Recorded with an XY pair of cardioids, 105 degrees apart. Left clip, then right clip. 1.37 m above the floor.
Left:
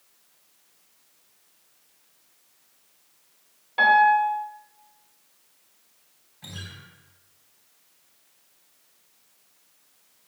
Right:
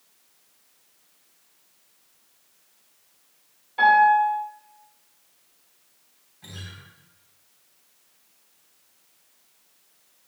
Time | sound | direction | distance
3.8 | a piano | 55° left | 3.5 m
6.4 | a guitar | 35° left | 4 m